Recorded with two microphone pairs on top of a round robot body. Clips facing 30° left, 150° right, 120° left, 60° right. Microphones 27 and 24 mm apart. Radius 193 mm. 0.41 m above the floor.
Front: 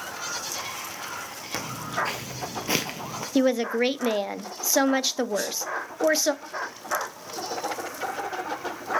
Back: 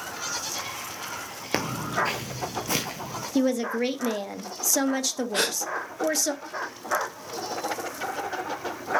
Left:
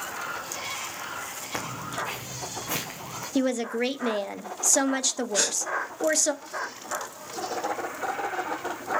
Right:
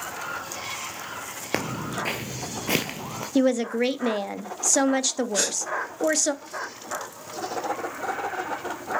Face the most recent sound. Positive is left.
turn(degrees=-150)